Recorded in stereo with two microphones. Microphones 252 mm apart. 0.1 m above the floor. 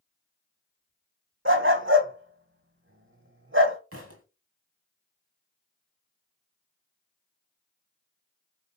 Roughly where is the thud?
Right.